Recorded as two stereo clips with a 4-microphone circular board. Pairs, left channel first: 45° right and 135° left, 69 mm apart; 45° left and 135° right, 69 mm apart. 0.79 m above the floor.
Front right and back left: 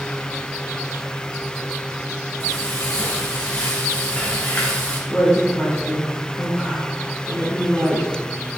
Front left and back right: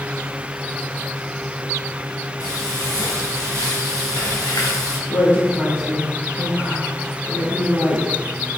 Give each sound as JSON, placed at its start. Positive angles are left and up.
{"t": 2.4, "sound": "frying", "azimuth_deg": 25, "distance_m": 2.5}
{"t": 5.1, "sound": "a woman speaking", "azimuth_deg": 55, "distance_m": 2.5}